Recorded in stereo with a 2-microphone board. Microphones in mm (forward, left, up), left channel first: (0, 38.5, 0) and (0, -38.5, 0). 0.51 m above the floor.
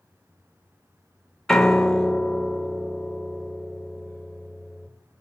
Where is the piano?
10° left (ahead or behind), 1.1 m.